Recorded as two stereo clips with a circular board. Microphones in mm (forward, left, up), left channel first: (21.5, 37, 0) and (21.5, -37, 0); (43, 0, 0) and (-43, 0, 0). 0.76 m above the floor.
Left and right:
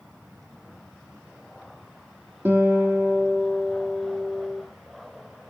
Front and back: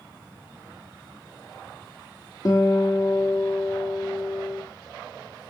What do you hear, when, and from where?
2.5 s a guitar: 35° right, 1.7 m